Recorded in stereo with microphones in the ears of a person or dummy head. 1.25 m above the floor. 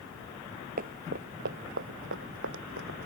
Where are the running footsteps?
45° right (ahead or behind); by 3.1 s 65° right (ahead or behind).